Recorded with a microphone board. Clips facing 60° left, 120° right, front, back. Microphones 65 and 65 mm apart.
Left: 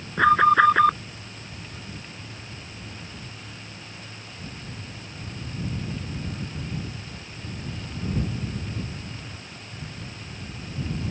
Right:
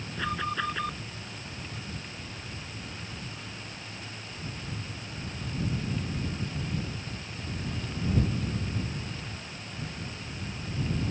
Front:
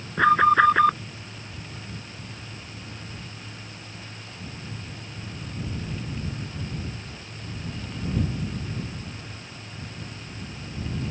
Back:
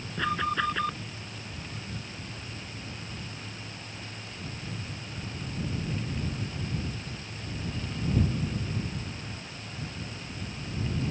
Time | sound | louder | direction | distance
0.2 | an alarm | left 16 dB, front 12 dB | 30° left | ?